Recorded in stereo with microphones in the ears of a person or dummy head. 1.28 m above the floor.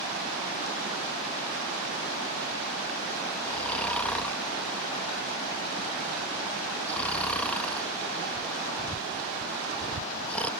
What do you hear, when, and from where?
3.5 s snoring: 10° left (ahead or behind)